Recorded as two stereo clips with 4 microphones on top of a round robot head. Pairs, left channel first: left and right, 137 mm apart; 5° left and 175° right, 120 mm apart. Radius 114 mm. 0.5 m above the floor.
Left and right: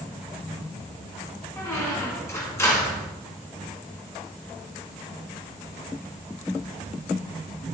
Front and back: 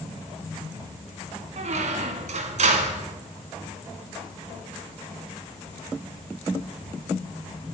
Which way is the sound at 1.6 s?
165° left.